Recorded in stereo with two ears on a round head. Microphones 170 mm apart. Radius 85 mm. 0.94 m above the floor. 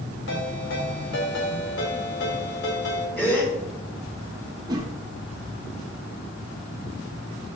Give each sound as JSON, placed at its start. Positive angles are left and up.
{"t": 0.3, "sound": "a ringtone", "side_deg": 65, "distance_m": 3.5}
{"t": 3.2, "sound": "a gasp", "side_deg": 10, "distance_m": 5.0}
{"t": 4.7, "sound": "a whoosh", "side_deg": -20, "distance_m": 1.4}